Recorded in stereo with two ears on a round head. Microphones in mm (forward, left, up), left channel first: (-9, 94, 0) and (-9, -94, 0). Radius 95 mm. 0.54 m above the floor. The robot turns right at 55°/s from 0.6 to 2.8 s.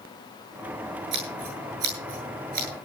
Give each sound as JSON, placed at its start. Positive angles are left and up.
{"t": 1.1, "sound": "scissors", "side_deg": -55, "distance_m": 9.5}